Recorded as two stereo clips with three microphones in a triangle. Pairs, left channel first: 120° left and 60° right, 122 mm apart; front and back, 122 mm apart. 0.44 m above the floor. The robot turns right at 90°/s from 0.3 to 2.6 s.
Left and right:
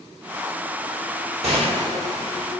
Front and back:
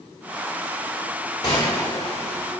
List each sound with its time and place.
1.4 s a gunshot: 55° right, 1.7 m; by 2.5 s 40° left, 1.7 m